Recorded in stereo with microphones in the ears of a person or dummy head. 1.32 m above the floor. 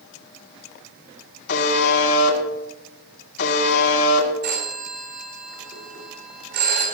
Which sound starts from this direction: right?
A phone ringing, at 4.4 s.